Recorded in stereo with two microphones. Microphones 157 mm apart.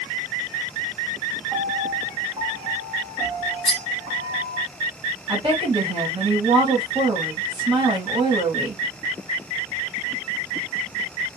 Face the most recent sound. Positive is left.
turn(degrees=-30)  # may be behind; listen again after turning